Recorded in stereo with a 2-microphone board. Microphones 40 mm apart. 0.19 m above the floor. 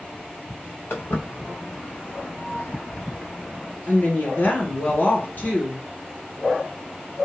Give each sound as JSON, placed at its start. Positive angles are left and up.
{"t": 0.9, "sound": "footsteps", "side_deg": 70, "distance_m": 1.4}
{"t": 3.9, "sound": "a woman speaking", "side_deg": 55, "distance_m": 1.6}